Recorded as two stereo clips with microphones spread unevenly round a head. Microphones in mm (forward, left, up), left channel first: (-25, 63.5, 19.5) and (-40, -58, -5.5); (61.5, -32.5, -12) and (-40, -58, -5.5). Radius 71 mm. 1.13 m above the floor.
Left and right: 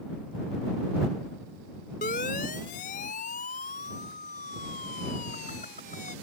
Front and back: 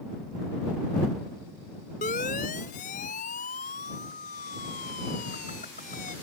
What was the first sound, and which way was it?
A siren, 45° left.